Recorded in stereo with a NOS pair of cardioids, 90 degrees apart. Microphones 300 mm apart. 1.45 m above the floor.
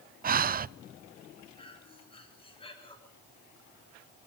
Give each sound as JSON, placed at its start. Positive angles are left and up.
{"t": 0.2, "sound": "breathing", "azimuth_deg": -30, "distance_m": 0.5}
{"t": 1.6, "sound": "breathing", "azimuth_deg": 15, "distance_m": 8.0}